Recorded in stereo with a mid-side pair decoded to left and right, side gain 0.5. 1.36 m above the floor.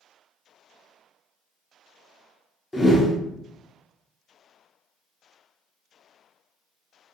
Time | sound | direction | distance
2.7 | a whoosh | 15° left | 0.5 m